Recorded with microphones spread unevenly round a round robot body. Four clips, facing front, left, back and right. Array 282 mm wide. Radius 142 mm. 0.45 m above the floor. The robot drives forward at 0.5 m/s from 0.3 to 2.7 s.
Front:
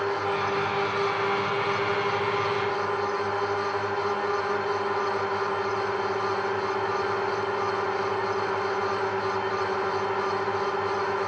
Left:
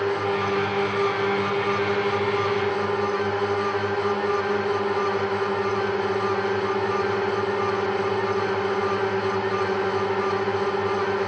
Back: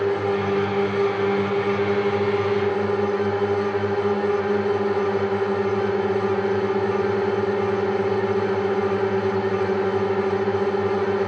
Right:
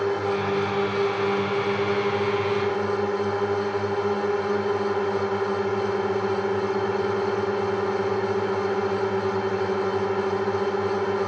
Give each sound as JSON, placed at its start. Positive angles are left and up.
{"t": 0.0, "sound": "a drone", "azimuth_deg": 180}